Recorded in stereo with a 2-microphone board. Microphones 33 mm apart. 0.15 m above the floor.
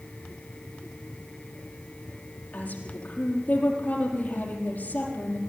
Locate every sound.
2.5 s a woman speaking: 45° left (ahead or behind), 5 m